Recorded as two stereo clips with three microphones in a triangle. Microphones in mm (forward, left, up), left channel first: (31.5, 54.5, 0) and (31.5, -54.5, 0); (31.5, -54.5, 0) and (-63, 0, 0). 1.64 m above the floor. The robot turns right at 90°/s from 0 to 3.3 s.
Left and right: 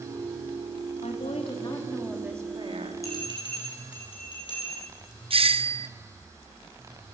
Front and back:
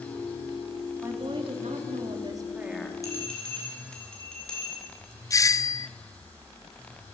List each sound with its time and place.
1.0 s a woman speaking: 80° left, 3 m; by 3.0 s 95° right, 3 m
3.0 s a bell: 30° left, 6 m; by 4.9 s 50° left, 6 m
5.3 s a doorbell: 85° right, 0.6 m